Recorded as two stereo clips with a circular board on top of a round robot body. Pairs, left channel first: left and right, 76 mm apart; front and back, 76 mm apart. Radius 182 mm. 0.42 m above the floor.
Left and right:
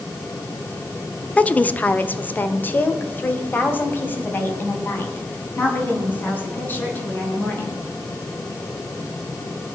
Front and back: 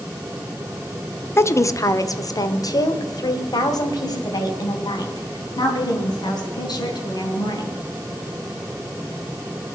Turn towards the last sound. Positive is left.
turn(degrees=25)